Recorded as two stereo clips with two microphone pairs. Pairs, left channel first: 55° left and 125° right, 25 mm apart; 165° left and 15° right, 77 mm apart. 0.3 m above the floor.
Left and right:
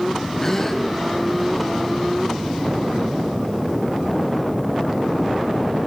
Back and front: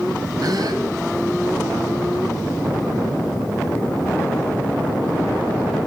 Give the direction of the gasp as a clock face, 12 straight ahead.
12 o'clock.